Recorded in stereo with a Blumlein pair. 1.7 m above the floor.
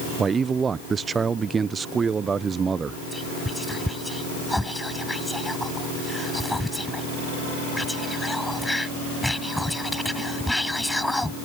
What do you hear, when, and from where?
0.2 s a man speaking: 15° right
3.1 s whispering: 5° left